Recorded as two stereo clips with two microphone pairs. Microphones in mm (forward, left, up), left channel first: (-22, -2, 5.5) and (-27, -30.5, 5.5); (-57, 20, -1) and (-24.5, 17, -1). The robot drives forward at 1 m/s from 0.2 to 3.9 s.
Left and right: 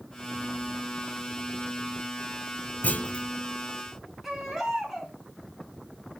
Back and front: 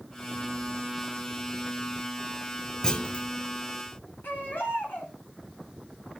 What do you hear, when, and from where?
2.8 s a clunk: 105° left, 0.7 m; by 3.3 s 130° left, 1.0 m
4.2 s a baby crying: straight behind, 5 m